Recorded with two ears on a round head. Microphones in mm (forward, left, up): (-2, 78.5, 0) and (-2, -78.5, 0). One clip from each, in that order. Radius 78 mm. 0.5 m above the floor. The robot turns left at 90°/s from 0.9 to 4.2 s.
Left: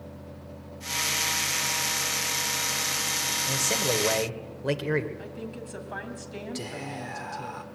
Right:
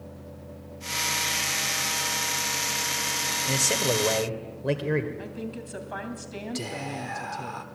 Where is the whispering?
5° right (ahead or behind), 1.4 m.